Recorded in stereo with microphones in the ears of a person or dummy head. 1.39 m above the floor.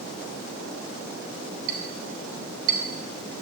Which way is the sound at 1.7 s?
60° right (ahead or behind).